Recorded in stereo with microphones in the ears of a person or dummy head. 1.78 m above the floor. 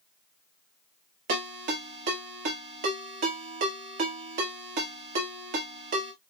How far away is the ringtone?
About 2.5 m.